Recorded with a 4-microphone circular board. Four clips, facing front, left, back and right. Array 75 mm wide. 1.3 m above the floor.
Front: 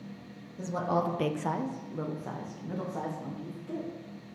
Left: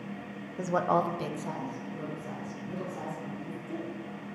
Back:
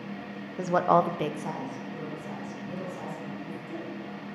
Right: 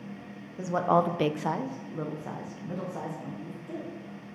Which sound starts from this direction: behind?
A woman speaking, at 0.6 s.